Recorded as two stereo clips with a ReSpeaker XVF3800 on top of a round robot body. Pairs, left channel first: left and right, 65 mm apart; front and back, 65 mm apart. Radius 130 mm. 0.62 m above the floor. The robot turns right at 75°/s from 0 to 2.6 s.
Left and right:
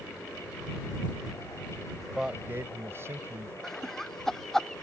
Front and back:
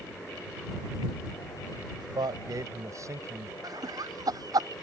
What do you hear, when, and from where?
2.0 s a man speaking: 170° left; by 3.5 s 145° right
3.6 s laughter: 175° left